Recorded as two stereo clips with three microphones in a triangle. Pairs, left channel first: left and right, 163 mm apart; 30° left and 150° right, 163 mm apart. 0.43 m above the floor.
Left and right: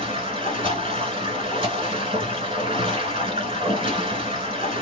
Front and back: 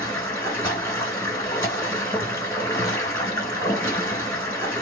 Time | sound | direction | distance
0.0 | running water | 40° right | 1.8 m